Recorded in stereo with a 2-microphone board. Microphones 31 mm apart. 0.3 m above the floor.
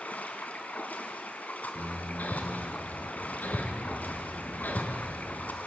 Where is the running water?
60° left (ahead or behind), 2.5 m.